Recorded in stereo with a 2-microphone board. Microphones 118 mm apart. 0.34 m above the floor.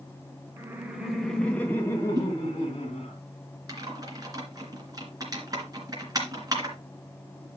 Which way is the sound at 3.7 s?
35° right (ahead or behind).